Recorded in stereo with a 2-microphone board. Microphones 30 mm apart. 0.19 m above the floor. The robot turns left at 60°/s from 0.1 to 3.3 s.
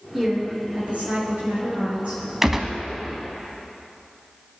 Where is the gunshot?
15° right (ahead or behind), 0.7 m; by 2.8 s 5° right (ahead or behind), 0.7 m.